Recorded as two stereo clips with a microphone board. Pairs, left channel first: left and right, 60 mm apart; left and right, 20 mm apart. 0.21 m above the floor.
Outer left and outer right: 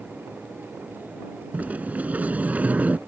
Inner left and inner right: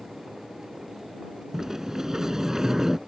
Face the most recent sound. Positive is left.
turn(degrees=-25)  # may be behind; listen again after turning